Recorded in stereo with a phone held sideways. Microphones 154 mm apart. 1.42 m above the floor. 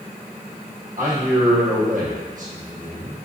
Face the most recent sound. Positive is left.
turn(degrees=-55)  # may be behind; listen again after turning